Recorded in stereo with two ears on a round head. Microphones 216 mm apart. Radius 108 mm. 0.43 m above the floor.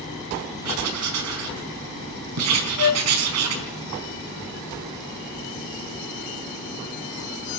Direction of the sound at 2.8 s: 75° left (ahead or behind).